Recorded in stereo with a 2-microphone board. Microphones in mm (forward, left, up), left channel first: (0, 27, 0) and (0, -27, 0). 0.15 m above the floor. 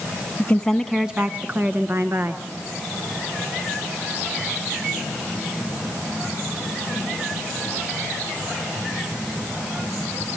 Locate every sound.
0.4 s a woman speaking: 25° left (ahead or behind), 1.2 m; by 2.4 s 60° right (ahead or behind), 2 m